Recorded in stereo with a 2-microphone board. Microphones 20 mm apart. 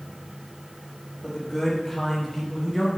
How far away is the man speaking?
About 1.4 m.